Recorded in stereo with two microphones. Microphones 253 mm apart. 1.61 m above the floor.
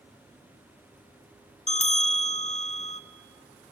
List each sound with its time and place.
1.7 s a bell: 25° left (ahead or behind), 0.6 m